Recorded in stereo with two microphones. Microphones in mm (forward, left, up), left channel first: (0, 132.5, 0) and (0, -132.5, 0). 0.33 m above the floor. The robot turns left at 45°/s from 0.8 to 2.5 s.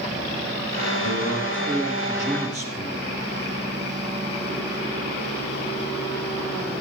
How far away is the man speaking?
About 7.5 m.